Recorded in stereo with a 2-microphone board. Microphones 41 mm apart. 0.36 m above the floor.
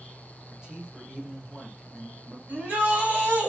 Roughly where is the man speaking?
Centre.